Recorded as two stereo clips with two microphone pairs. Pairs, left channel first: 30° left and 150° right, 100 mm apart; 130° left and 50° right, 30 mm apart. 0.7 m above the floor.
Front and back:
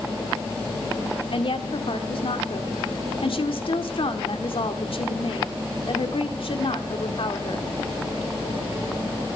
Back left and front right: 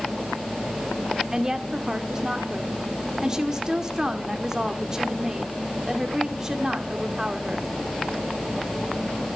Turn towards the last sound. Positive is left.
turn(degrees=15)